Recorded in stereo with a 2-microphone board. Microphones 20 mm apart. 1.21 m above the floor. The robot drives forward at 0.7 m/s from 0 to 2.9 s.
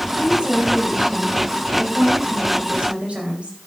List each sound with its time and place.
0.2 s a woman speaking: 55° right (ahead or behind), 5.5 m; by 3.6 s 75° right (ahead or behind), 4.5 m